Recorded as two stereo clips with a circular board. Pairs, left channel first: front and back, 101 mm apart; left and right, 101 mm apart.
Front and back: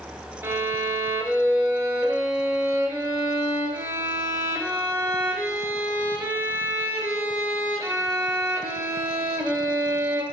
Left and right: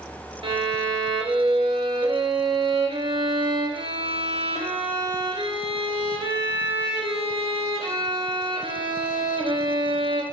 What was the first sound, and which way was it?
A violin, 115° right.